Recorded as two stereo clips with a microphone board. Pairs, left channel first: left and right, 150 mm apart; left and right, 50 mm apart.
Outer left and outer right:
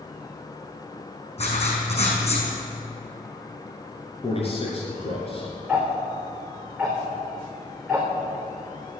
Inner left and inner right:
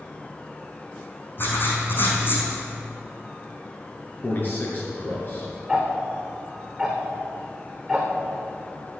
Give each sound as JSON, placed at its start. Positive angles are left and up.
{"t": 1.4, "sound": "writing", "side_deg": 45, "distance_m": 4.5}
{"t": 4.2, "sound": "a man speaking", "side_deg": 40, "distance_m": 3.5}
{"t": 5.7, "sound": "ticking", "side_deg": 0, "distance_m": 3.5}